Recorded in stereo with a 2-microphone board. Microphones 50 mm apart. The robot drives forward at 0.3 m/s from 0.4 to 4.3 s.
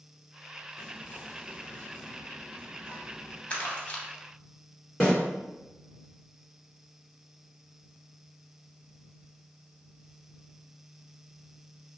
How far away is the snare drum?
About 2.0 m.